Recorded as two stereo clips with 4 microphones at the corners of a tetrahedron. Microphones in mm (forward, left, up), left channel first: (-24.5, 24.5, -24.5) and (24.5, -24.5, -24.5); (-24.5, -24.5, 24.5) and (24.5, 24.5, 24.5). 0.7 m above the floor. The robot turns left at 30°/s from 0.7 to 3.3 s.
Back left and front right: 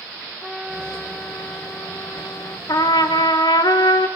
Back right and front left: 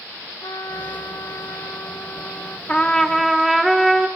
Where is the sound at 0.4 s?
140° right, 1.2 m; by 2.6 s 165° left, 1.2 m.